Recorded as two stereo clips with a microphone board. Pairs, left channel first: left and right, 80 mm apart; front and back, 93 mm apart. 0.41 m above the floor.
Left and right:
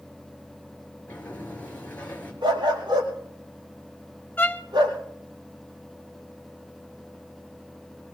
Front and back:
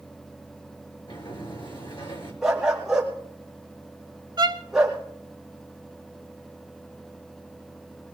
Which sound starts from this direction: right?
A dog barking, at 2.4 s.